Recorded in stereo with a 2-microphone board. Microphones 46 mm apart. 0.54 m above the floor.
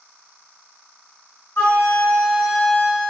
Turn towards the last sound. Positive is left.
turn(degrees=45)  # may be behind; listen again after turning